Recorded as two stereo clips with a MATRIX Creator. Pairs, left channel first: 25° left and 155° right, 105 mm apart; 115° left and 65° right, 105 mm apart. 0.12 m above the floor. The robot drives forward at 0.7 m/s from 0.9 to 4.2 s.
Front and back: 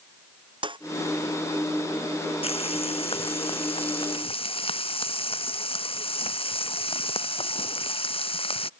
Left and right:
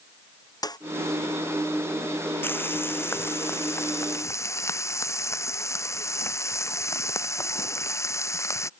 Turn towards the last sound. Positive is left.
turn(degrees=50)